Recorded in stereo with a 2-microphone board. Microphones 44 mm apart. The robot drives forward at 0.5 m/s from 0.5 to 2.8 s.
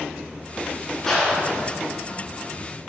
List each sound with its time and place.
1.1 s a clap: 10° left (ahead or behind), 7.5 m